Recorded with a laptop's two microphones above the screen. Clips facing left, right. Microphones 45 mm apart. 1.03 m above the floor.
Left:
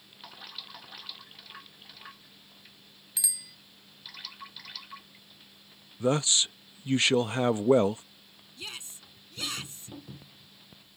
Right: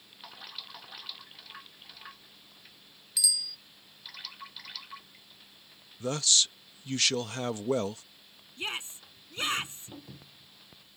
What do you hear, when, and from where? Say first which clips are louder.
3.2 s a bicycle bell: right 7 dB; 30° left (ahead or behind)
6.0 s a man speaking: left 3 dB; 25° left (ahead or behind)
8.6 s a shout: right 6 dB; 35° right (ahead or behind)